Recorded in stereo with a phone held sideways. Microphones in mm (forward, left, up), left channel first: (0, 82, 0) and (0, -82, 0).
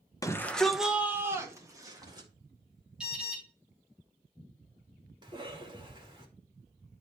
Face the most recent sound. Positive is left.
turn(degrees=-30)  # may be behind; listen again after turning